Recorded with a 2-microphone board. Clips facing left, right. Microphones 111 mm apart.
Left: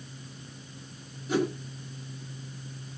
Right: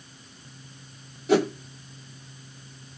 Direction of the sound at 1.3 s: 80° right.